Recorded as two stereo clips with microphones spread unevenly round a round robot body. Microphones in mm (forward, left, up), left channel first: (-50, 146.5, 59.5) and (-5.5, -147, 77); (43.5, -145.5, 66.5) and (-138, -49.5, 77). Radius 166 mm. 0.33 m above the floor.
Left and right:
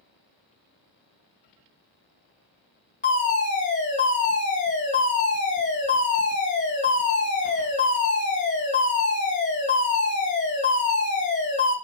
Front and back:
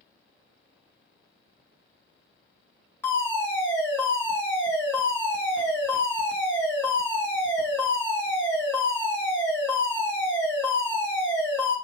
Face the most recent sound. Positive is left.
turn(degrees=45)